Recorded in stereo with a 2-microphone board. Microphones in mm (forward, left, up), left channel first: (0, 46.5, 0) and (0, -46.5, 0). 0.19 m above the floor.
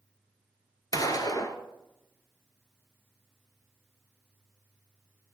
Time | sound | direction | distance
0.9 | a gunshot | 40° left (ahead or behind) | 1.1 m